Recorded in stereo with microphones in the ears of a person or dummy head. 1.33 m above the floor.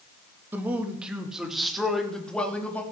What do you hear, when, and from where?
0.5 s a man speaking: 15° right (ahead or behind), 2.5 m; by 2.8 s centre (ahead or behind), 3.5 m